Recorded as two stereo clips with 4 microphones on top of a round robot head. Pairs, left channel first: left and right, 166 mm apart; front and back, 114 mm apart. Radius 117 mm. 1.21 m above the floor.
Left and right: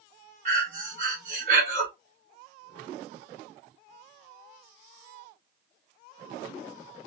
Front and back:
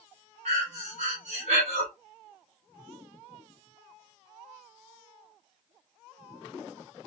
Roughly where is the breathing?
Behind right.